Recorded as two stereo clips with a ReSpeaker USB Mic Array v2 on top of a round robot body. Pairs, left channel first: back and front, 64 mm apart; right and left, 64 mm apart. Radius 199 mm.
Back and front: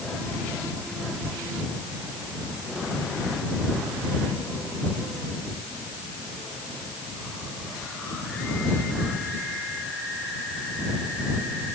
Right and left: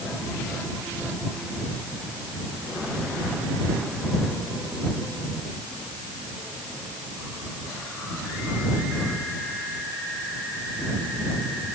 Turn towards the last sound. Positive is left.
No sound to turn to.